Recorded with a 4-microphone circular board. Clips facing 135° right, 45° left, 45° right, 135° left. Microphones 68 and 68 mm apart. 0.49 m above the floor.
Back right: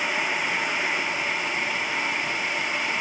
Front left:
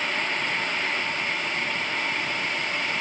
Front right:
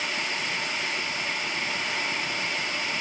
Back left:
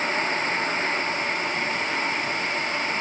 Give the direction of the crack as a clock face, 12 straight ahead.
I don't hear a crack.